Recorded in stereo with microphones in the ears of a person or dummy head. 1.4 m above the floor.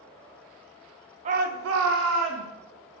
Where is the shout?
35° right (ahead or behind), 0.8 m; by 2.5 s 60° right (ahead or behind), 1.7 m.